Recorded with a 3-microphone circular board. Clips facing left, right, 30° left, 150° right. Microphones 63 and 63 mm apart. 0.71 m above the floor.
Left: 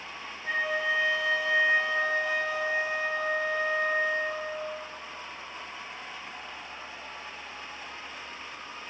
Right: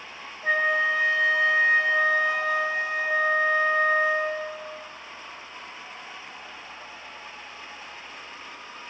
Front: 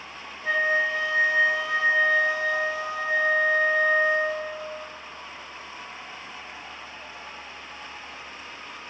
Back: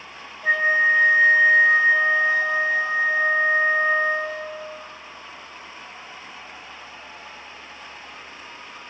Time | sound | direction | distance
0.4 | a flute | 90° right | 1.3 m